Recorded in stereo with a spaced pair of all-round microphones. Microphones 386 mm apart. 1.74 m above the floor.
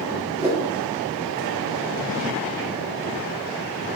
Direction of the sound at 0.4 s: 15° right (ahead or behind).